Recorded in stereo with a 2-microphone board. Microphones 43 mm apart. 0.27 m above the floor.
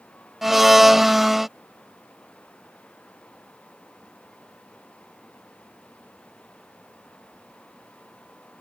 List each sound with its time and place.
0.4 s a blender: 5° right (ahead or behind)